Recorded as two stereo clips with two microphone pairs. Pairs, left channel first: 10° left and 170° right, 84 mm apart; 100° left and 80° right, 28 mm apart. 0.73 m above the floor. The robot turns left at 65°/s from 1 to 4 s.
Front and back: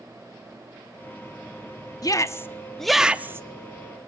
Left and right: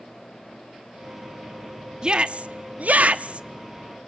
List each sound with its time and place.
2.0 s a shout: 20° right, 0.9 m; by 3.5 s 115° right, 0.9 m